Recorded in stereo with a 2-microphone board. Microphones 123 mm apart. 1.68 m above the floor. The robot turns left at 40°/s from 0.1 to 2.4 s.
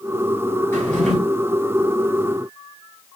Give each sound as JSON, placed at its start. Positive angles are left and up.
{"t": 0.7, "sound": "a drawer", "side_deg": 15, "distance_m": 2.0}